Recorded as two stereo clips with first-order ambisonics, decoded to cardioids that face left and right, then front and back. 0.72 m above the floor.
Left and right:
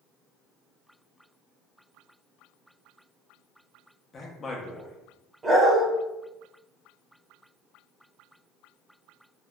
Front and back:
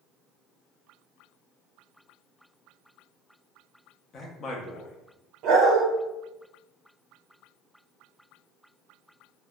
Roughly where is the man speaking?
Ahead left.